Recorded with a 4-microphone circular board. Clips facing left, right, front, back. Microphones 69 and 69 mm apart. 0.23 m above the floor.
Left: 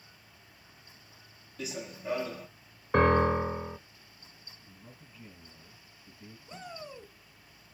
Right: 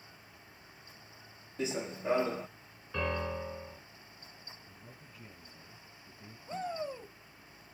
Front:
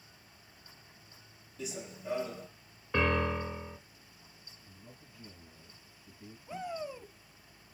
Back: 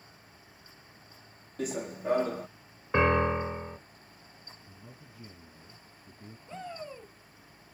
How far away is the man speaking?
About 1.4 m.